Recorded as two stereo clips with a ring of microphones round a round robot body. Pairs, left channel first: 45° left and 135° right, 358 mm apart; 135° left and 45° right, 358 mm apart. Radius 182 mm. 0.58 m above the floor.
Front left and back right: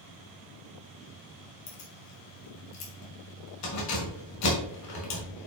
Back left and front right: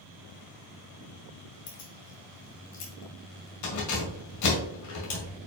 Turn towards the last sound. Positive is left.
turn(degrees=90)